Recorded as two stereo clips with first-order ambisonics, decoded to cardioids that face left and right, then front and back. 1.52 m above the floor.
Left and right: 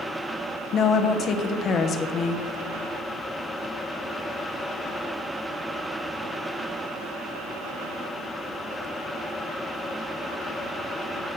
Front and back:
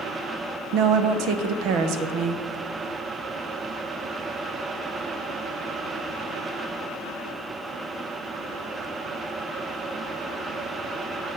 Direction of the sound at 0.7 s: 150° left.